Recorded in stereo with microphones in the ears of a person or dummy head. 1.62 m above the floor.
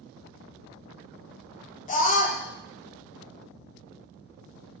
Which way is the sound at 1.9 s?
35° left (ahead or behind).